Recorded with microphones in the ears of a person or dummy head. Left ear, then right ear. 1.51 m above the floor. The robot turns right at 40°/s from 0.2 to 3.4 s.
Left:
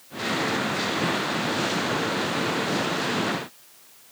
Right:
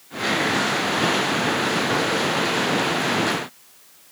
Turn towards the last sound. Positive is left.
No sound to turn to.